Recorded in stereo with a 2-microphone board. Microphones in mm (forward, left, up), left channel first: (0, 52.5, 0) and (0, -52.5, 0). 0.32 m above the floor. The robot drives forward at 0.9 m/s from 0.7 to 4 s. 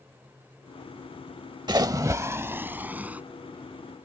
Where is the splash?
40° right (ahead or behind); by 3.2 s 15° right (ahead or behind).